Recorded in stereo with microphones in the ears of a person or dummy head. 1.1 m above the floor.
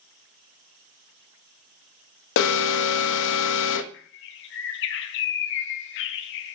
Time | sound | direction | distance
2.4 | an alarm | 75° left (ahead or behind) | 0.7 m
3.9 | a bird | 65° left (ahead or behind) | 0.6 m